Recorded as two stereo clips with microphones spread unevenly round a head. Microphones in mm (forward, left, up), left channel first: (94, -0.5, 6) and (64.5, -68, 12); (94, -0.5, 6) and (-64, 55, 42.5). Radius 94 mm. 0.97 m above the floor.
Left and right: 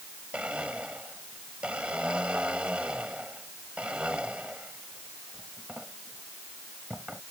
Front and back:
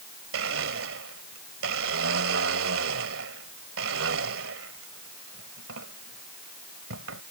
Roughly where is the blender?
Behind.